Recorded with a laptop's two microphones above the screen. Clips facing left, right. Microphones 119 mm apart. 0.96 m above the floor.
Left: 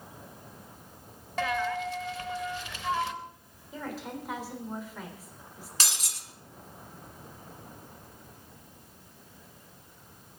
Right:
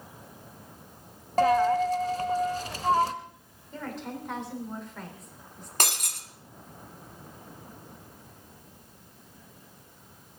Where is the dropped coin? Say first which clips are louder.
Right 9 dB; 40° right (ahead or behind), 0.9 m.